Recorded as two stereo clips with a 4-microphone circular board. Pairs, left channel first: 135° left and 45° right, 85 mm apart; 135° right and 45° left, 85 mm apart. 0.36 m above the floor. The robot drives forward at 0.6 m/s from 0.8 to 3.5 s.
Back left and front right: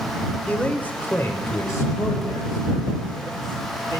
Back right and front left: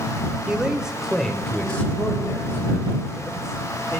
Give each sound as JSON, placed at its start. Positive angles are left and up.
{"t": 0.5, "sound": "a man speaking", "azimuth_deg": 105, "distance_m": 0.9}